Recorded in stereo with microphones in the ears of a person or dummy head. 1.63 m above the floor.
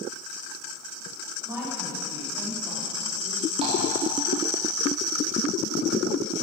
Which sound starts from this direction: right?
Tapping, at 3.6 s.